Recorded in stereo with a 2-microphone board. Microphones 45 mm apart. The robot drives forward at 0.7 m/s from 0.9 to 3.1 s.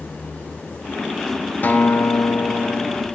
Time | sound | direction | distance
1.6 | a guitar | 40° left (ahead or behind) | 0.6 m